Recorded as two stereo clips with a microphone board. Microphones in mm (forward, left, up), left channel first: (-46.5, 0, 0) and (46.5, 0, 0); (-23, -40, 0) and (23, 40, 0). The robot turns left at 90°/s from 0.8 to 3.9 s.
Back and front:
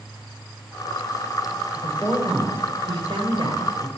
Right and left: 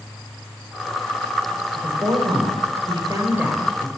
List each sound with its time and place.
1.7 s a woman speaking: 140° left, 4 m; by 3.9 s 55° right, 4 m